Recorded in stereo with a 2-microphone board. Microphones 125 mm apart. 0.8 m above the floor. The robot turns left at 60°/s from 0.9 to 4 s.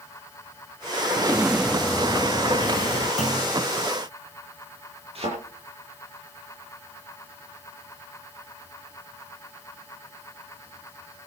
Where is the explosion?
145° right, 0.8 m; by 3.1 s 100° left, 0.8 m.